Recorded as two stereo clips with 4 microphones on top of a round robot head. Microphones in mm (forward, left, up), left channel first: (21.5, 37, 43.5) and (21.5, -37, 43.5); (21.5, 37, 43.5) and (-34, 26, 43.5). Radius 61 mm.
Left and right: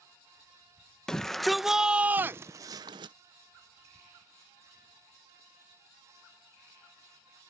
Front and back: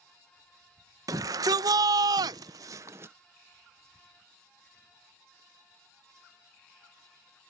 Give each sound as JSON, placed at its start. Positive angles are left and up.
{"t": 1.1, "sound": "a shout", "azimuth_deg": 175}